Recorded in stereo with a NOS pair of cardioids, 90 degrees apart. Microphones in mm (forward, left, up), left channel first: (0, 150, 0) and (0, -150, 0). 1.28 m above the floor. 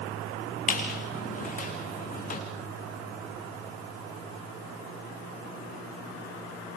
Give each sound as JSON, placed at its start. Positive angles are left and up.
{"t": 0.7, "sound": "a squeak", "azimuth_deg": 25, "distance_m": 6.5}